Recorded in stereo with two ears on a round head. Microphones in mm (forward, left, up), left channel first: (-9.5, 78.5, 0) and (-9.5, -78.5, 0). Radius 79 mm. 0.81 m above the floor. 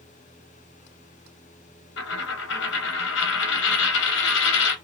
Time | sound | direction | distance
2.0 | a dropped coin | 65° left (ahead or behind) | 0.7 m